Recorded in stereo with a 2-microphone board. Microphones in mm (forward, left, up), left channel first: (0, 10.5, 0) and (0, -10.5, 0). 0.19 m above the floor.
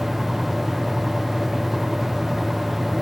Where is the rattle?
I don't hear a rattle.